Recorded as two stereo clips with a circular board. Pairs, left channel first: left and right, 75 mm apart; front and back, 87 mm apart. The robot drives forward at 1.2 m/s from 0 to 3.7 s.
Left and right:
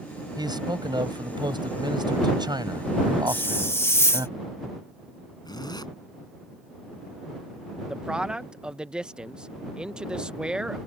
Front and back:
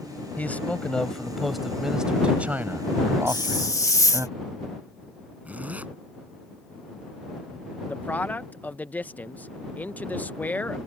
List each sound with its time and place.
0.4 s a man speaking: 70° right; by 4.3 s 125° right
3.3 s a hiss: 30° left; by 4.3 s 40° left
5.5 s a zipper: 110° left
7.9 s a man speaking: 30° right